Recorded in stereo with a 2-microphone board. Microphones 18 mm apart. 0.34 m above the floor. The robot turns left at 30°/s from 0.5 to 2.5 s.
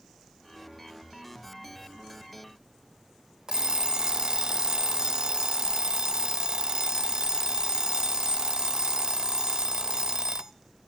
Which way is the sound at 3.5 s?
40° right (ahead or behind).